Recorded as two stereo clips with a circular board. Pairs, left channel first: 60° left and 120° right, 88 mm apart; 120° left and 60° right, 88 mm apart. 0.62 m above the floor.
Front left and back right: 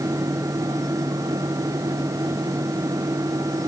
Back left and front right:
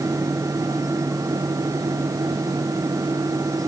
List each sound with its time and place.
Only background noise.